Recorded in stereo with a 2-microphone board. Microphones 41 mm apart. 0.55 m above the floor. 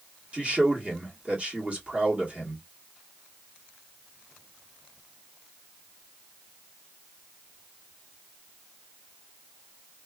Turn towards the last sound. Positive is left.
turn(degrees=-35)  # may be behind; listen again after turning